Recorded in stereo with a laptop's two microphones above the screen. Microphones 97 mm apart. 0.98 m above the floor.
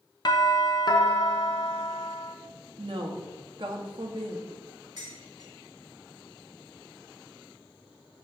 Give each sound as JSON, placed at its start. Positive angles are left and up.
{"t": 0.2, "sound": "a doorbell", "side_deg": 50, "distance_m": 0.8}
{"t": 2.8, "sound": "a woman speaking", "side_deg": -55, "distance_m": 1.3}
{"t": 5.0, "sound": "dishes clattering", "side_deg": -45, "distance_m": 2.0}